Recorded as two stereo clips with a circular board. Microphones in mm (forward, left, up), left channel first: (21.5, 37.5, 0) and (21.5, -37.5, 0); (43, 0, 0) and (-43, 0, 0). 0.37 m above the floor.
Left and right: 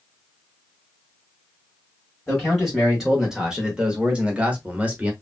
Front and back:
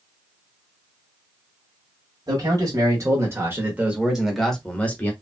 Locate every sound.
2.3 s a man speaking: 175° right, 1.4 m; by 5.1 s 40° right, 1.1 m